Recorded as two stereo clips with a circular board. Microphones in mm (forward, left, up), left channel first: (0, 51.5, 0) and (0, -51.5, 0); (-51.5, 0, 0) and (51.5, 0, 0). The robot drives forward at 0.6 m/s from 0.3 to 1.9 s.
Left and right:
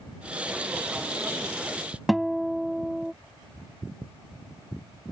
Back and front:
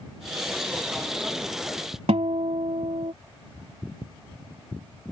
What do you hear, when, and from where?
2.1 s a guitar: straight ahead